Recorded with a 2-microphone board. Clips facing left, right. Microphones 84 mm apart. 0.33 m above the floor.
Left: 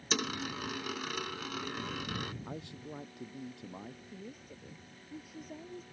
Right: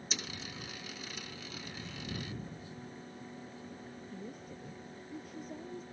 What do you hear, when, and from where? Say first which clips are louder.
0.1 s a dropped coin: left 10 dB; 80° left
2.5 s a man speaking: left 3 dB; 85° left
4.1 s a woman speaking: right 3 dB; 5° left (ahead or behind)